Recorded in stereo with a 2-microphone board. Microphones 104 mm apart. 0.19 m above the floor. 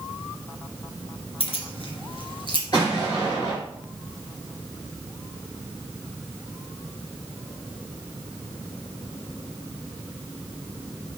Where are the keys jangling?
65° left (ahead or behind), 2 m; by 2.6 s 45° left (ahead or behind), 2 m.